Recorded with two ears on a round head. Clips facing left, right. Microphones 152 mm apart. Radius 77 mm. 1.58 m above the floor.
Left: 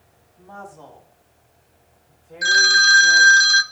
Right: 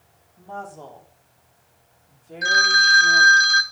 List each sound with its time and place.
0.4 s a woman speaking: 25° right (ahead or behind), 4.5 m; by 3.4 s 60° right (ahead or behind), 4.5 m
2.4 s a phone ringing: 40° left (ahead or behind), 0.7 m